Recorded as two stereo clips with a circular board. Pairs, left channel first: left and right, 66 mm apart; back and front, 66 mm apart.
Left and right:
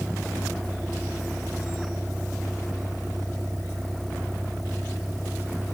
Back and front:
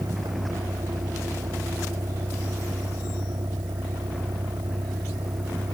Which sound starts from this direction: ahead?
A vehicle, at 0.0 s.